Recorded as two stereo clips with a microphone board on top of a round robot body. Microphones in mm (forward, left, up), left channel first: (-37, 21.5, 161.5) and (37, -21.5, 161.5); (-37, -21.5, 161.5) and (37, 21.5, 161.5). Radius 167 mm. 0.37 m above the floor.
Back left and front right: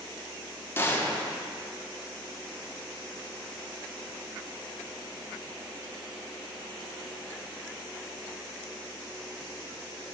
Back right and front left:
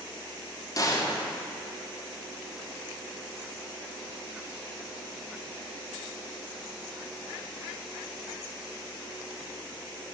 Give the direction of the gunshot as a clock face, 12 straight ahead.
5 o'clock.